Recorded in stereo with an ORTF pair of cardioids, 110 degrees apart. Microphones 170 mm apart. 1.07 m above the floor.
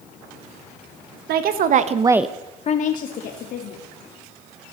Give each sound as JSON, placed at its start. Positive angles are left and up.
{"t": 1.3, "sound": "a woman speaking", "azimuth_deg": -70, "distance_m": 1.4}